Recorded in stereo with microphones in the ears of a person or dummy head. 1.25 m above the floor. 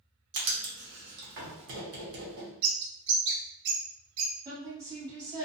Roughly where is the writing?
Right.